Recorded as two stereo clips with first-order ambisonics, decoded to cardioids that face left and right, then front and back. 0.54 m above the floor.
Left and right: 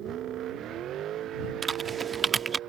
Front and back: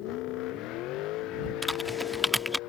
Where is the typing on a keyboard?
75° right.